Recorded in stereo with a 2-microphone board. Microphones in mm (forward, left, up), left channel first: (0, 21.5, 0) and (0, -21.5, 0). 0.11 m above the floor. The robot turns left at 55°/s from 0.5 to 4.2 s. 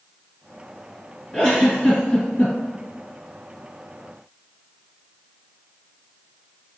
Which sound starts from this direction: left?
A giggle, at 1.3 s.